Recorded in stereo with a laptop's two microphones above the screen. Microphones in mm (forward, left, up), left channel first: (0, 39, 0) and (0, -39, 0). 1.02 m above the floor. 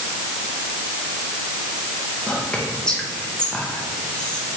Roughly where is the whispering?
Centre.